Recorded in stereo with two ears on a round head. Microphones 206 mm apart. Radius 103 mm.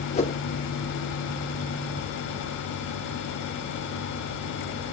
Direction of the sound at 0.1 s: 25° left (ahead or behind).